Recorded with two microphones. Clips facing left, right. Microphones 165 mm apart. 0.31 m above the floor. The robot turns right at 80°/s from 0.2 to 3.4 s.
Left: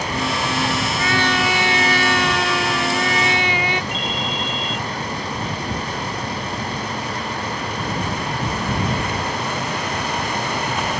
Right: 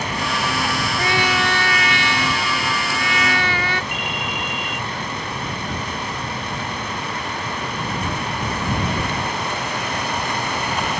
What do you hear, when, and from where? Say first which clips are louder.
1.0 s a trumpet: even; 35° right; by 3.8 s 160° left
3.9 s a ringtone: left 2 dB; 60° right (ahead or behind)